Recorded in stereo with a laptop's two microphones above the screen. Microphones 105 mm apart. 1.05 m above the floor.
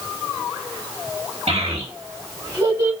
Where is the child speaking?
75° right (ahead or behind), 1.7 m; by 2.9 s 20° right (ahead or behind), 2.0 m.